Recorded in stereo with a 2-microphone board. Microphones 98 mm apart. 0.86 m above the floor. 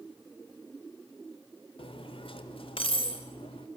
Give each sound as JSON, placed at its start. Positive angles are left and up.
{"t": 1.8, "sound": "cutlery clinking", "side_deg": 70, "distance_m": 2.0}